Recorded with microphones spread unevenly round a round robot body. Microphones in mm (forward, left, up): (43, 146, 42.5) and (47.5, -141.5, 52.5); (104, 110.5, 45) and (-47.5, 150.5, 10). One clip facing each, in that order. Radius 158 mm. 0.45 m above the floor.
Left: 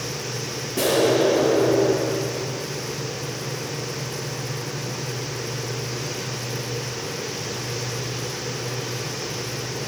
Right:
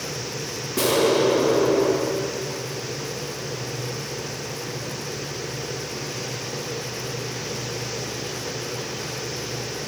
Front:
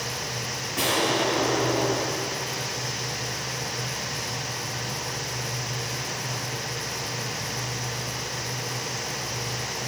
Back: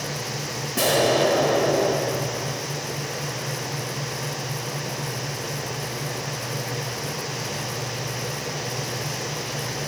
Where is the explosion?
170° right, 2 m.